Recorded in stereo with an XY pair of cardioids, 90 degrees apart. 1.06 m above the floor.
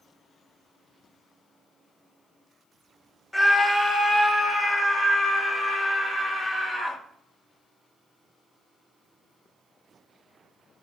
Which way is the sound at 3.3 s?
10° left.